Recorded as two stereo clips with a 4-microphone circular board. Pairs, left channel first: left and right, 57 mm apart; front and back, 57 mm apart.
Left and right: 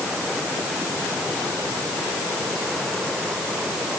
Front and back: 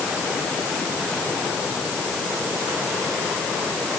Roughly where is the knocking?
No knocking in this recording.